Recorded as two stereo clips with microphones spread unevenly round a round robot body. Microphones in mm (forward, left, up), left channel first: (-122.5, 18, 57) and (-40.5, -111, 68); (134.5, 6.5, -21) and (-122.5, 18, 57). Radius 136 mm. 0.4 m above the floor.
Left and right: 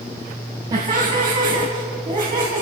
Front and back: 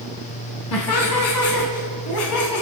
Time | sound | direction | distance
0.7 | laughter | 15° left | 4 m